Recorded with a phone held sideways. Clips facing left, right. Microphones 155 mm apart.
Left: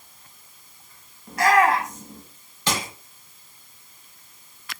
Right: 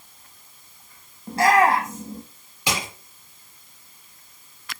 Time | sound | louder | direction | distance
1.3 | a shout | right 1 dB | 30° right (ahead or behind) | 1.6 m
2.7 | crushing | left 1 dB | 15° right (ahead or behind) | 6 m